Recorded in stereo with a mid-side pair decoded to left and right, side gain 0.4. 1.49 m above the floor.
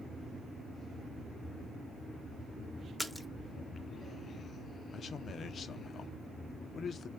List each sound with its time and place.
3.0 s a splash: 10° left, 0.7 m
4.9 s a man speaking: 55° left, 0.8 m